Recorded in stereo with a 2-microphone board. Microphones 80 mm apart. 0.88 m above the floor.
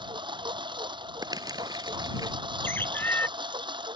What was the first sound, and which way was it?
A lawn mower, 85° right.